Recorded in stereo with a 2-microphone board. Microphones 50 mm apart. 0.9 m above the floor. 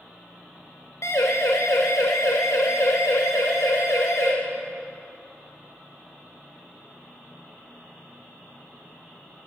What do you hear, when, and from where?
1.0 s a siren: 70° left (ahead or behind), 4.5 m